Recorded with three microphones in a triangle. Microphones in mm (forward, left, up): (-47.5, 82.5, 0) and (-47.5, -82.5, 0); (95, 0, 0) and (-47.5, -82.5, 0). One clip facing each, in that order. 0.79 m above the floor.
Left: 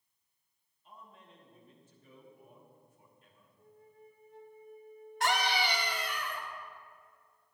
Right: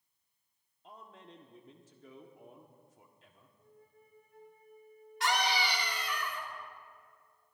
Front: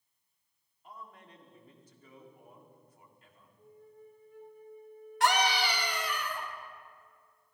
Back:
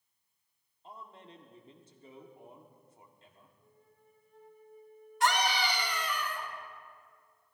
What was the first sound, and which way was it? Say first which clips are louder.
A man speaking: right 3 dB, back 1 dB; 85° right.